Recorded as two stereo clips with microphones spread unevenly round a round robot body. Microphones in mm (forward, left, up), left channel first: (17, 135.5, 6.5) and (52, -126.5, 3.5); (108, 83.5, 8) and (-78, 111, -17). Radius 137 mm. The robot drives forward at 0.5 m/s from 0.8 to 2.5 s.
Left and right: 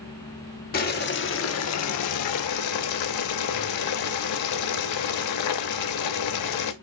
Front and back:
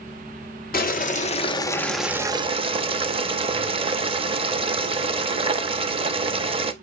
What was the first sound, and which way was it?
Boiling, 40° left.